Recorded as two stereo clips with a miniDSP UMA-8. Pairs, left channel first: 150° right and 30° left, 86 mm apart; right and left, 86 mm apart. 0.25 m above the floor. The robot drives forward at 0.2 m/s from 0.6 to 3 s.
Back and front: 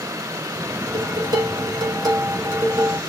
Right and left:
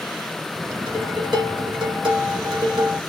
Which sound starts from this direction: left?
Dishes clattering, at 0.9 s.